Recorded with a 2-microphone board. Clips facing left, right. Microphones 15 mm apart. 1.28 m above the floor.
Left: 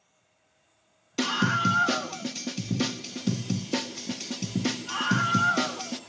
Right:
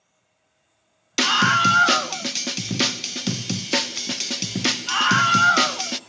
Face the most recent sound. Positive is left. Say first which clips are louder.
# right 8 dB
turn(degrees=-75)  # may be behind; listen again after turning